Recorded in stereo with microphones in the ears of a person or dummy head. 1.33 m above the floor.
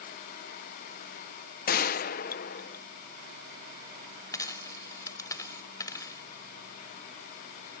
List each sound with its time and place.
1.7 s a gunshot: 50° left (ahead or behind)
4.3 s a dropped coin: 20° left (ahead or behind)